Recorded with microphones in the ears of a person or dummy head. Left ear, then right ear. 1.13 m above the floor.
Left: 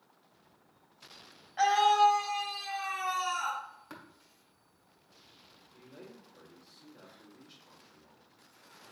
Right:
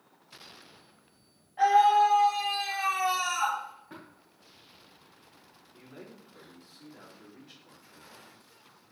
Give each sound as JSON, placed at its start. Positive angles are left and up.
{"t": 1.6, "sound": "a scream", "side_deg": 55, "distance_m": 1.2}
{"t": 3.9, "sound": "tapping", "side_deg": 60, "distance_m": 1.5}
{"t": 5.7, "sound": "a man speaking", "side_deg": -75, "distance_m": 2.5}